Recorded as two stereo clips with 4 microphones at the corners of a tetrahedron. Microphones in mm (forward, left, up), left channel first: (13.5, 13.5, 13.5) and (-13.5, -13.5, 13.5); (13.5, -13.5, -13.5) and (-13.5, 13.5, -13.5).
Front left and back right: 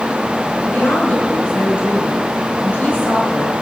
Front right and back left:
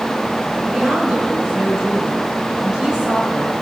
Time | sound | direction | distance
0.6 | a woman speaking | 75° left | 6 m